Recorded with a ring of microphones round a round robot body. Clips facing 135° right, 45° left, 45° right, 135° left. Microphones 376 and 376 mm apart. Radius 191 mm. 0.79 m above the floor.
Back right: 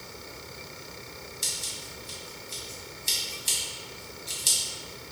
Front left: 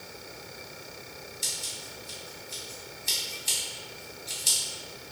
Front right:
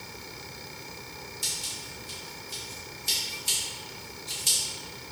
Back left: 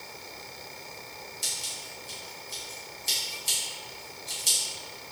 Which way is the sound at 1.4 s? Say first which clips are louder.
Back right 1 dB, front right 2 dB; 130° right.